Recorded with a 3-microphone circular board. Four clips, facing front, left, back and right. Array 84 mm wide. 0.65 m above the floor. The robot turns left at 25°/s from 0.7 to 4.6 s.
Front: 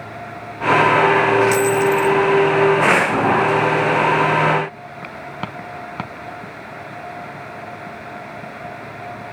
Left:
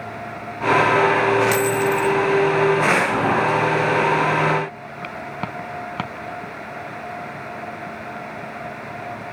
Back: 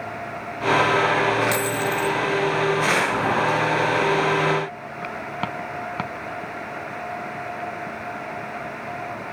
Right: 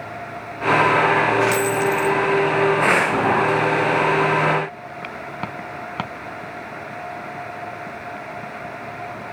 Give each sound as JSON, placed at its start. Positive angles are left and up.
{"t": 1.5, "sound": "a dropped coin", "azimuth_deg": 90, "distance_m": 1.0}